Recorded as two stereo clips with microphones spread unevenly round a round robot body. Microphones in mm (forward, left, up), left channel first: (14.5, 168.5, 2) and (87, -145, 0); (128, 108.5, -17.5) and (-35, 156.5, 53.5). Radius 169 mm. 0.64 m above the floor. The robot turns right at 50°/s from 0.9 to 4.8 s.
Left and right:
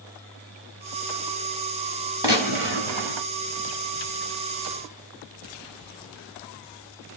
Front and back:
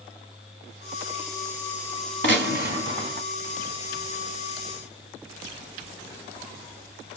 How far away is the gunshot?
About 0.9 m.